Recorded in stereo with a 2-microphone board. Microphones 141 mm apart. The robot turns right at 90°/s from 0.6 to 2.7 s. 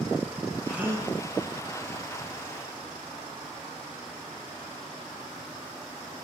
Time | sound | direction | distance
0.7 | a gasp | straight behind | 1.1 m